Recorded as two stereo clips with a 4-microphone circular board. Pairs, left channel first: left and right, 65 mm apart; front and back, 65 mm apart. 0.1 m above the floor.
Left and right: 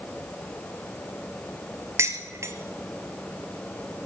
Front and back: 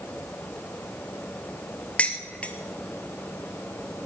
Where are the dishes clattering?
65° right, 1.2 m.